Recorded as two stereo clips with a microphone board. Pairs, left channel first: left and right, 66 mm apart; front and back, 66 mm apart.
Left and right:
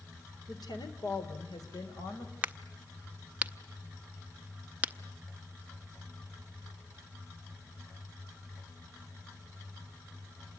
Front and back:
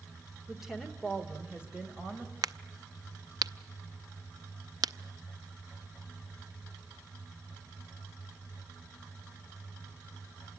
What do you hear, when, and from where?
0.5 s a woman speaking: 95° left, 2 m; by 2.3 s 110° left, 4.5 m
2.4 s a crack: 155° right, 0.6 m